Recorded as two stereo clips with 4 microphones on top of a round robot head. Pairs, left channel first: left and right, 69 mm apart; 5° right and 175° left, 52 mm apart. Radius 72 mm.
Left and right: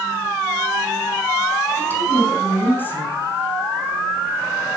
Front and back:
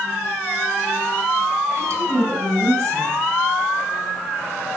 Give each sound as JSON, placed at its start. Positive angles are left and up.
{"t": 1.8, "sound": "a woman speaking", "azimuth_deg": 150, "distance_m": 5.0}